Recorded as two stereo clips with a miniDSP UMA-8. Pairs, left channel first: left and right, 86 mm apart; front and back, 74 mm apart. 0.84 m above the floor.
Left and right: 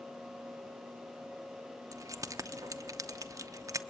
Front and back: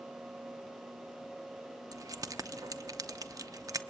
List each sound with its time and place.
1.9 s keys jangling: 140° right, 0.8 m